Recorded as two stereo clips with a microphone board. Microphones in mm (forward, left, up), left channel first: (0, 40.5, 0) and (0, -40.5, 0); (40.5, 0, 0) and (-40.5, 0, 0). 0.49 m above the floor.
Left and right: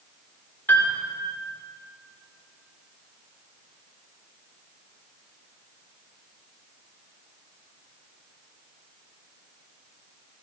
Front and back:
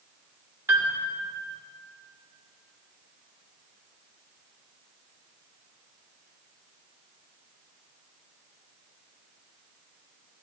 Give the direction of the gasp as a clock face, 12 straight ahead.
No gasp in this recording.